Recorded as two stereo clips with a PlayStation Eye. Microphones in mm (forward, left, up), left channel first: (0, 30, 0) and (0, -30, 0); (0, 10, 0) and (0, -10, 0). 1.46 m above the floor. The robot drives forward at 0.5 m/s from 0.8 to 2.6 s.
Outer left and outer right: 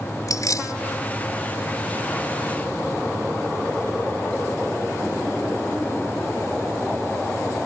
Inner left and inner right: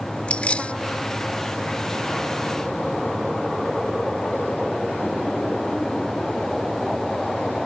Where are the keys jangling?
75° left (ahead or behind).